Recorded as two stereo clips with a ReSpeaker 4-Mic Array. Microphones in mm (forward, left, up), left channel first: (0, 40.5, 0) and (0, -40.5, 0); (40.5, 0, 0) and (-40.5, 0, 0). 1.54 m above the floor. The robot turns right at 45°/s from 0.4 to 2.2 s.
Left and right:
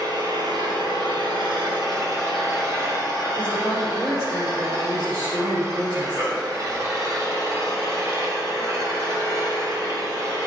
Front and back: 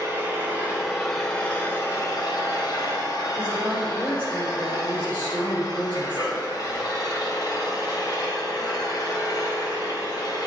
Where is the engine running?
120° right, 4 m; by 10.5 s 40° right, 4 m.